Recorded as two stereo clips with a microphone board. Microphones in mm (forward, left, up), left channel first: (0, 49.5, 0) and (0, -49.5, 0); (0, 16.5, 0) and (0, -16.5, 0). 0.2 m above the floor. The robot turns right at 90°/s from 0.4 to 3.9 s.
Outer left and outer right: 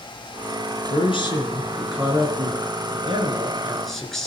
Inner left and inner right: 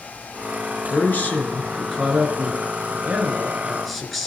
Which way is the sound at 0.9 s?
95° left.